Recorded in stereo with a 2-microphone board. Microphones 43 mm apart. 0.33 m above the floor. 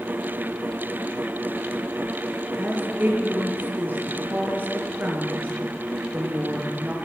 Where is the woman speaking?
50° right (ahead or behind), 4.5 m.